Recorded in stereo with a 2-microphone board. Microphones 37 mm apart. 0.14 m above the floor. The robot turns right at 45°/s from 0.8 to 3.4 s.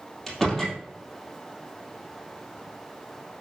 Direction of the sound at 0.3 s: 10° left (ahead or behind).